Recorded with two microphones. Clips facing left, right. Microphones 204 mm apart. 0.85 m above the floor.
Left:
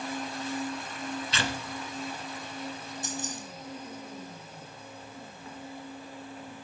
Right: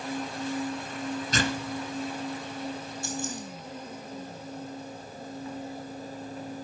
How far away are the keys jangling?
About 3.5 m.